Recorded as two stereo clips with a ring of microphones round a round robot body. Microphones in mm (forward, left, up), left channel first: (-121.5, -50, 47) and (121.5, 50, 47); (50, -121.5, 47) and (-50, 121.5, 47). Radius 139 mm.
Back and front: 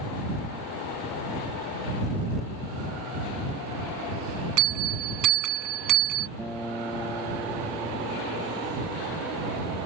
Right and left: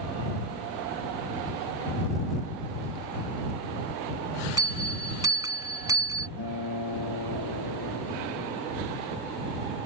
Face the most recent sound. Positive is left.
turn(degrees=-70)